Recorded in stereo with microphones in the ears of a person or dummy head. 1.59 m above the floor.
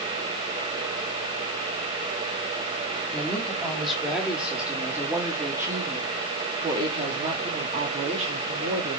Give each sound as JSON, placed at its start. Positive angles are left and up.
{"t": 3.1, "sound": "a woman speaking", "side_deg": 5, "distance_m": 4.0}